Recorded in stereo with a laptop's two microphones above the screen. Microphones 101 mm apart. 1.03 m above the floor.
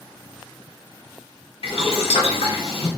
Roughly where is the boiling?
Left.